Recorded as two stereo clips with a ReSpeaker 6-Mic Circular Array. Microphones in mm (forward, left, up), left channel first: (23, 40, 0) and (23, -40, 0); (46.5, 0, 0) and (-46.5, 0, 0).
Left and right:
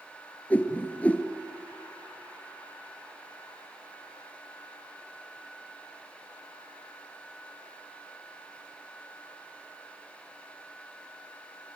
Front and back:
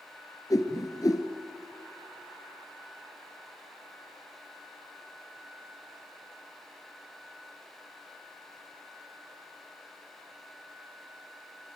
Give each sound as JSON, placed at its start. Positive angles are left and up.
{"t": 0.5, "sound": "a whoosh", "azimuth_deg": 25, "distance_m": 1.8}